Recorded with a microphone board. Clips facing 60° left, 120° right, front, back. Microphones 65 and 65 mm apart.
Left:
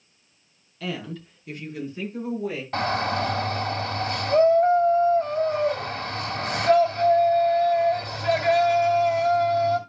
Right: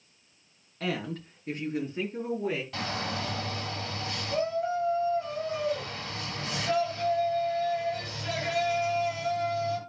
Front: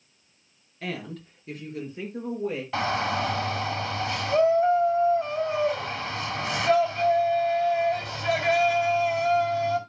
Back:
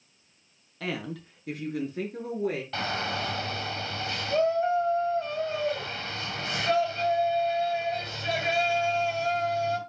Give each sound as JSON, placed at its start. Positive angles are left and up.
{"t": 0.8, "sound": "a woman speaking", "azimuth_deg": -175, "distance_m": 4.5}
{"t": 2.7, "sound": "a shout", "azimuth_deg": 75, "distance_m": 2.0}